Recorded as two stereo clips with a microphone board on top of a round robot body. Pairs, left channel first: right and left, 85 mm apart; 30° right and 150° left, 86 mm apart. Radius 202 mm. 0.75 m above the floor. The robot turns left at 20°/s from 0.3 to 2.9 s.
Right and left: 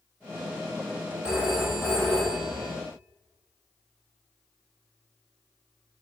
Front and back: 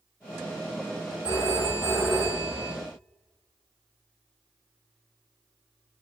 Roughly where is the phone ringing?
Ahead.